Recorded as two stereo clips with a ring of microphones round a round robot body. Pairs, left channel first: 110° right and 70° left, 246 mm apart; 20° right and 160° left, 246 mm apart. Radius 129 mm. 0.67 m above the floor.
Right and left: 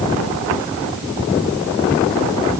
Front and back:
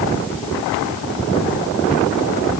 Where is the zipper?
I don't hear a zipper.